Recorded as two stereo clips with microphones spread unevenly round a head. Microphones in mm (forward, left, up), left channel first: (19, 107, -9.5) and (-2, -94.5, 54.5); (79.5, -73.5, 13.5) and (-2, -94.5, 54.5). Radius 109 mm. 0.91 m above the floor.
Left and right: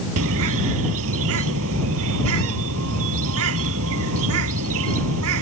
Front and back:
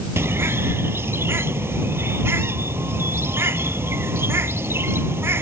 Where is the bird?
110° right.